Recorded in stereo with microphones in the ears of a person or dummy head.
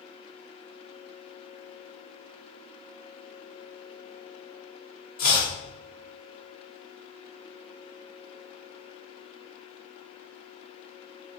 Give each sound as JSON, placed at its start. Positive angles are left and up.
{"t": 5.2, "sound": "chopping", "side_deg": 50, "distance_m": 1.3}